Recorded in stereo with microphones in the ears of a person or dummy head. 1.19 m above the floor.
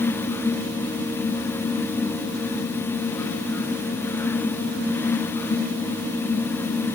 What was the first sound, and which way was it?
Only background noise.